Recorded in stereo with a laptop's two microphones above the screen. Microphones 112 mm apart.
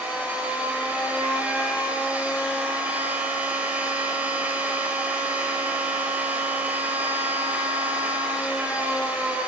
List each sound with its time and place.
0.0 s a machine running: 15° right (ahead or behind), 5.5 m